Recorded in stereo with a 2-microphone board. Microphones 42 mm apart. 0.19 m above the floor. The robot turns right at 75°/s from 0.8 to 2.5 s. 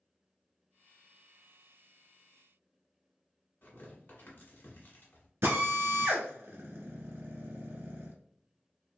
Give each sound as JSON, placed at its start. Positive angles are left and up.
{"t": 3.6, "sound": "tearing paper", "side_deg": 45, "distance_m": 1.2}
{"t": 5.4, "sound": "a drill", "side_deg": -70, "distance_m": 0.9}